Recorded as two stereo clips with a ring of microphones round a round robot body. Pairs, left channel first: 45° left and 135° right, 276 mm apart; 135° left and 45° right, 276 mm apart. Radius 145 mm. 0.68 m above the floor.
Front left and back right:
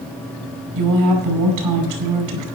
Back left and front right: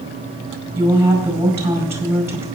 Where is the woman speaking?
125° right, 5 m.